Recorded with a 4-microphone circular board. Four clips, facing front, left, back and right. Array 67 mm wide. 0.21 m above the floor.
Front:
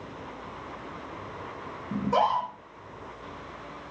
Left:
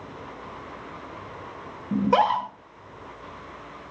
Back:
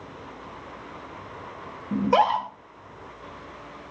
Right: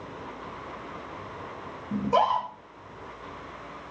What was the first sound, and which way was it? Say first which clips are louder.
A scream: left 3 dB, back 4 dB; 115° left.